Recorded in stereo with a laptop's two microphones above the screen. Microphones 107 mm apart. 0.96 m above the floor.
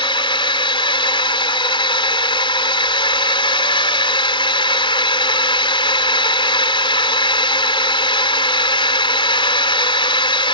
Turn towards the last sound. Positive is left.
turn(degrees=50)  # may be behind; listen again after turning